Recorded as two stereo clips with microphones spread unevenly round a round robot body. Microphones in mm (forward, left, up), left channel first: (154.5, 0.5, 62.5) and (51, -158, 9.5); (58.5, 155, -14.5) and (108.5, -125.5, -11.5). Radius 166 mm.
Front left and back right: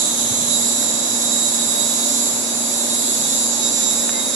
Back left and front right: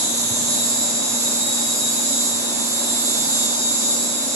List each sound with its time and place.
0.0 s an insect: 155° right, 0.9 m